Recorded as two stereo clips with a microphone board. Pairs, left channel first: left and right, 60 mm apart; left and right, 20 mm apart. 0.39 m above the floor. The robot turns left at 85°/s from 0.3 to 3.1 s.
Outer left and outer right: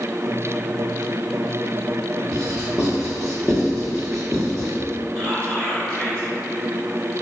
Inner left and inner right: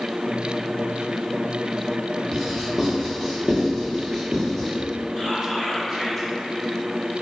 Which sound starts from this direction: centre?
Whispering, at 5.2 s.